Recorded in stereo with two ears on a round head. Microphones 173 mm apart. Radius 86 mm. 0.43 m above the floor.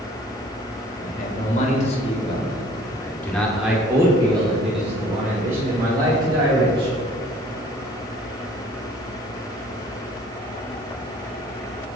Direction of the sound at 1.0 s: 45° left (ahead or behind).